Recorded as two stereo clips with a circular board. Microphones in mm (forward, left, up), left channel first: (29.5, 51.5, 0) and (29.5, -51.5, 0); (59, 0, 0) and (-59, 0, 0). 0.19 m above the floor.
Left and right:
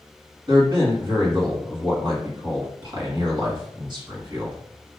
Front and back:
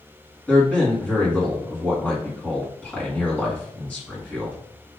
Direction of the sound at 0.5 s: 75° right.